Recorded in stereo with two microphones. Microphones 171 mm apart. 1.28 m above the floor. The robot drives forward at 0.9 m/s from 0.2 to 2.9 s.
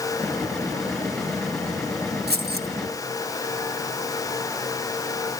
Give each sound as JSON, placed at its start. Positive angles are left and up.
{"t": 2.3, "sound": "keys jangling", "side_deg": -75, "distance_m": 1.4}